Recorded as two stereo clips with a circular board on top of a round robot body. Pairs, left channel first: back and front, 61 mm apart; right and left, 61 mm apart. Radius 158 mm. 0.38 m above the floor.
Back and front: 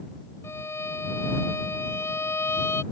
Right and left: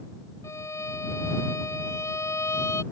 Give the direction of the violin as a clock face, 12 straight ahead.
4 o'clock.